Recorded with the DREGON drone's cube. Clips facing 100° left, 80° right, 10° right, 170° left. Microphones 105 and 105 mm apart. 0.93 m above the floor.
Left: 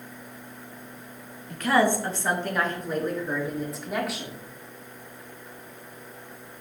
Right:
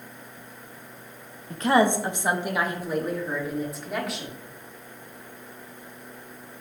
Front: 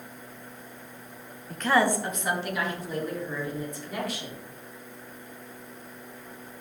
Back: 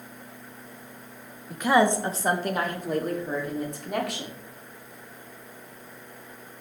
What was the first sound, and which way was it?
A woman speaking, 110° right.